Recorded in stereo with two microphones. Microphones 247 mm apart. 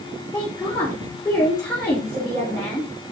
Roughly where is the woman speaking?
Centre.